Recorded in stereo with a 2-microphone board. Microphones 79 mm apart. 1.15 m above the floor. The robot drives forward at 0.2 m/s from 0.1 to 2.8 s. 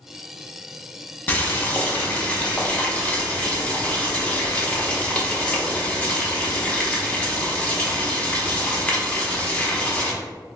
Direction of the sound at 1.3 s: 25° left (ahead or behind).